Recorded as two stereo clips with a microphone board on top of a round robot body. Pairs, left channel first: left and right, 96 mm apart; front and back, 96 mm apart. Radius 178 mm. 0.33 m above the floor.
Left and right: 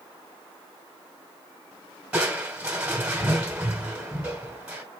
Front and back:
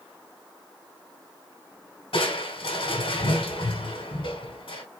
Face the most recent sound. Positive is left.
turn(degrees=-15)